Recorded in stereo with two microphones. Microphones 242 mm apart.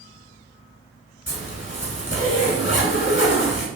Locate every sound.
1.3 s a zipper: 50° left (ahead or behind), 0.9 m